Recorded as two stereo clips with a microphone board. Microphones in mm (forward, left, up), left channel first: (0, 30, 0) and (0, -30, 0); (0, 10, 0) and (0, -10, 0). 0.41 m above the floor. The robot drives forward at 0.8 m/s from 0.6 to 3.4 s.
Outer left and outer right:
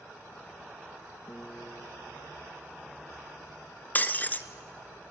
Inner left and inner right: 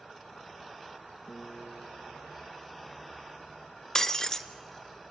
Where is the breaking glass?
30° left (ahead or behind), 0.9 m.